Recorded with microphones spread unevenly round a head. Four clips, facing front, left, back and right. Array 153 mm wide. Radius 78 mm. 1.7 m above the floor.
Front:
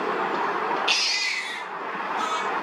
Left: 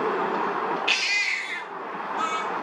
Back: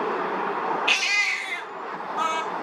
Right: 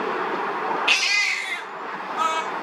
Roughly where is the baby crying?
Behind right.